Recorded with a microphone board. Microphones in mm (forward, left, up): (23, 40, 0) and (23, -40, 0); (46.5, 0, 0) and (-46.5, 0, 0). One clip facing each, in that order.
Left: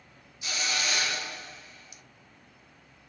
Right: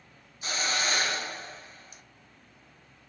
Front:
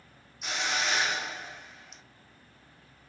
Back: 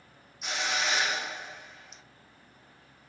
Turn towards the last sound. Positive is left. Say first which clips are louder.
# right 2 dB, even
turn(degrees=-90)